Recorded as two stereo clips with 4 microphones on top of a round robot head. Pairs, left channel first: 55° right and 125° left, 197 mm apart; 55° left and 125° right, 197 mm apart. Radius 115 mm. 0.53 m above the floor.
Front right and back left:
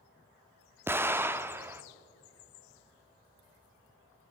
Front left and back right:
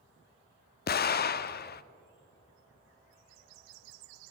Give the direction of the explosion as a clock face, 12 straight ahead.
10 o'clock.